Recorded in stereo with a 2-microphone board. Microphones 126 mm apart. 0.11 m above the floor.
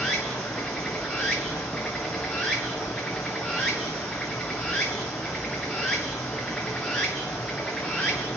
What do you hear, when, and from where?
0.0 s running water: 5° left (ahead or behind), 1.4 m